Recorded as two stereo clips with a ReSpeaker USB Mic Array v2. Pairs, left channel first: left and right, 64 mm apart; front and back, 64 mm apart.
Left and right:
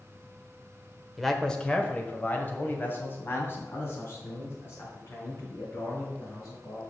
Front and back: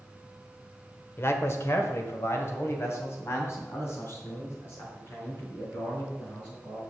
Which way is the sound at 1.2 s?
5° left.